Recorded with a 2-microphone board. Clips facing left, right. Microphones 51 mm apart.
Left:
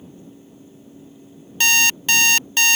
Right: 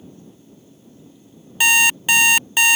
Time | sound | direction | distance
1.6 | an alarm clock | 15° right (ahead or behind) | ?